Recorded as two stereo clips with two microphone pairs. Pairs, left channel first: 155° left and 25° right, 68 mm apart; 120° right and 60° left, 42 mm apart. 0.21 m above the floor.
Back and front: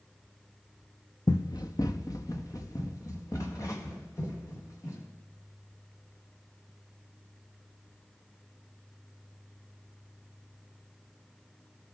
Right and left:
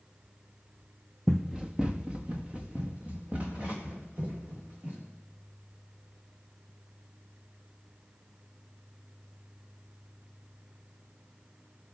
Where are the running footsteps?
150° left, 0.6 m; by 5.0 s 115° left, 6.5 m.